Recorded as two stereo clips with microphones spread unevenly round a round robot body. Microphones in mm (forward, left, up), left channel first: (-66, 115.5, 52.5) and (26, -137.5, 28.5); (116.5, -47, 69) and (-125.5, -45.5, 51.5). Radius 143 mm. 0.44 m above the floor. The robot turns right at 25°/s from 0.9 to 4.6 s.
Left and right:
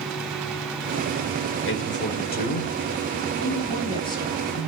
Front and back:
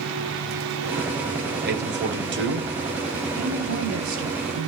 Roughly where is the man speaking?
Behind left.